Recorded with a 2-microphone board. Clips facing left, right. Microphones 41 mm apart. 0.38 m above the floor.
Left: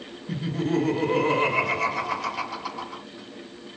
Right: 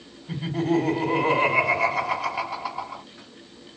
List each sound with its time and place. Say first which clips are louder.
0.3 s laughter: right 2 dB; 20° right (ahead or behind), 1.6 m